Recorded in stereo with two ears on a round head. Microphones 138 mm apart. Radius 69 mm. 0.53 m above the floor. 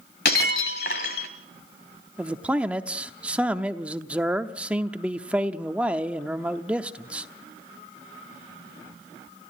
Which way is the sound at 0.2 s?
70° left (ahead or behind).